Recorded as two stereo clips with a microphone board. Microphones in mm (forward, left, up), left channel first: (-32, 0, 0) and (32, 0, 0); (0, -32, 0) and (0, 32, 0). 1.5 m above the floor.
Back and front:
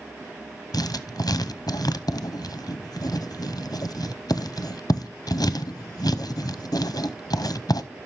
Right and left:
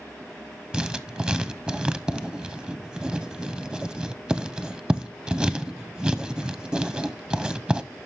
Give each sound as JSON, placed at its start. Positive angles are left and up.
{"t": 0.7, "sound": "writing", "azimuth_deg": 165, "distance_m": 0.6}